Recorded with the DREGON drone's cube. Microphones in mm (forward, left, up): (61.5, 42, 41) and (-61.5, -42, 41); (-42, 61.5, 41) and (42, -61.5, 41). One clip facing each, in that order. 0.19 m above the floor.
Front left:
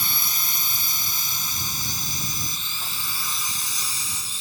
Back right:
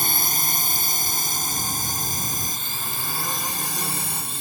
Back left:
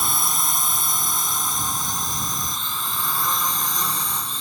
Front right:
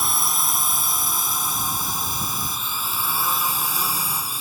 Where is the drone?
145° right; by 4.4 s 140° right.